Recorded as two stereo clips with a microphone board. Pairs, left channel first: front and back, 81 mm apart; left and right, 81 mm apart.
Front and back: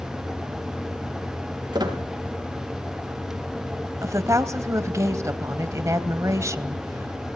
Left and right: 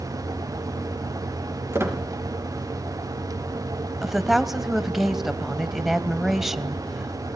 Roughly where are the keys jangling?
I don't hear keys jangling.